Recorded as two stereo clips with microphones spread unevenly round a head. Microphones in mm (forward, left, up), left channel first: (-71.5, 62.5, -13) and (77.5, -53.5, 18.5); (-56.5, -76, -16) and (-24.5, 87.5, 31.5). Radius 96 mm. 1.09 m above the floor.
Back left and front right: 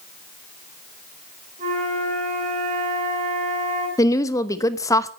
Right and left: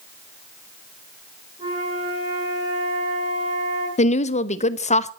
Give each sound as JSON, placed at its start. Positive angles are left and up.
{"t": 1.6, "sound": "a flute", "azimuth_deg": 15, "distance_m": 6.5}
{"t": 4.0, "sound": "a woman speaking", "azimuth_deg": -145, "distance_m": 1.0}